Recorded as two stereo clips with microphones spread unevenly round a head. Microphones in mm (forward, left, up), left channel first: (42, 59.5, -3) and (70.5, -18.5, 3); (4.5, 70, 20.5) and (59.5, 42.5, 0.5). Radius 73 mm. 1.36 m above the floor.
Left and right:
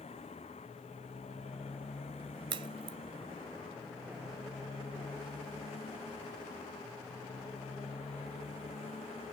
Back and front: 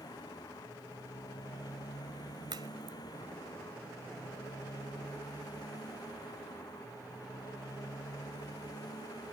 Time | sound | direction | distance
0.0 | a motorcycle | 150° left | ?
2.5 | a crack | 90° right | ?